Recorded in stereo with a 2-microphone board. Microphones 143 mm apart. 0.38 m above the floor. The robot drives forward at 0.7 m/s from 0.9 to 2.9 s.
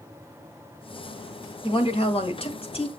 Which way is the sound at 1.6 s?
40° left (ahead or behind).